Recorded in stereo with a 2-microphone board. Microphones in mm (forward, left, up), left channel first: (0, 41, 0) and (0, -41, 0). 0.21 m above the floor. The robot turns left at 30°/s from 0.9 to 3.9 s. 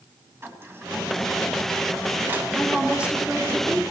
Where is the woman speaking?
5° right, 2.0 m; by 3.8 s 40° right, 2.0 m.